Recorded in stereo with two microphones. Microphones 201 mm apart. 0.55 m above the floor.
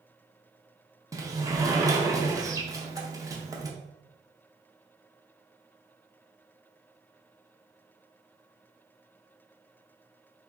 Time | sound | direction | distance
1.1 | a sliding door | 15° right (ahead or behind) | 0.5 m